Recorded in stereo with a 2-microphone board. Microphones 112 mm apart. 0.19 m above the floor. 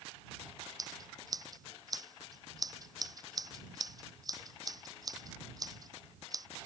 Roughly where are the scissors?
Right.